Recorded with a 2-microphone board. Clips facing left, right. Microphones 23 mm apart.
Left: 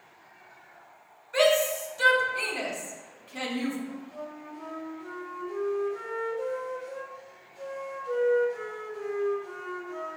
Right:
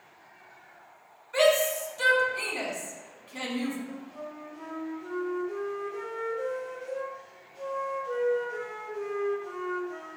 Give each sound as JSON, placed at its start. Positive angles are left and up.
{"t": 1.3, "sound": "a shout", "side_deg": -10, "distance_m": 3.0}
{"t": 3.9, "sound": "a flute", "side_deg": -45, "distance_m": 3.5}